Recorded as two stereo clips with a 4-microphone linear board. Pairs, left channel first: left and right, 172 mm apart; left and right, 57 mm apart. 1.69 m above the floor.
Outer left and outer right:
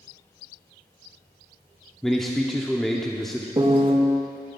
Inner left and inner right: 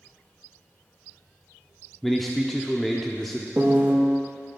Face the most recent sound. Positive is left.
turn(degrees=-30)  # may be behind; listen again after turning